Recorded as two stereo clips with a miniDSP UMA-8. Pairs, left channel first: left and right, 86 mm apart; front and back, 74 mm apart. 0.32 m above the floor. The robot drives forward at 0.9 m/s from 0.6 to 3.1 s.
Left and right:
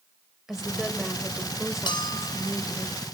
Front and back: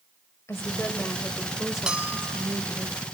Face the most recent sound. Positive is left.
turn(degrees=155)